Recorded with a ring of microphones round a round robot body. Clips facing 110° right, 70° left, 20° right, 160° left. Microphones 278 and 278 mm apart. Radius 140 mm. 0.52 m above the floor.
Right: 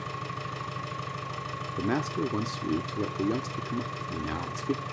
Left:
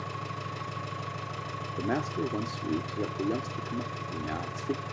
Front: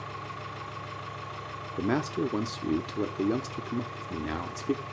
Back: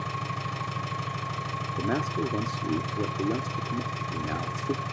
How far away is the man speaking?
About 0.6 m.